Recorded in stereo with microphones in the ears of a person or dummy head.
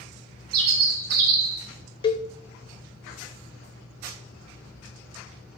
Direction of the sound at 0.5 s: 55° right (ahead or behind).